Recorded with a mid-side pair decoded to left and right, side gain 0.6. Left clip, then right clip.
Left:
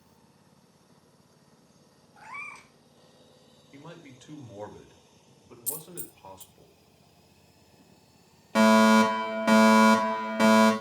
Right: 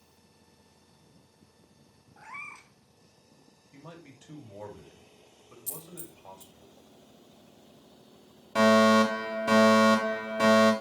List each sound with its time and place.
2.2 s a cat meowing: 15° left, 2.5 m
3.7 s a man speaking: 70° left, 5 m
5.7 s a dropped coin: 50° left, 1.6 m
8.6 s a fire alarm: 65° left, 5 m